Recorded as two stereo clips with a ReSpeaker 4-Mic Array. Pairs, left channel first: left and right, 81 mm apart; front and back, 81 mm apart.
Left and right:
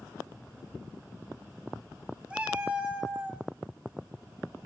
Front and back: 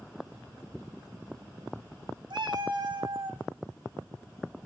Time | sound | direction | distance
2.3 | a cat meowing | 165° right | 0.8 m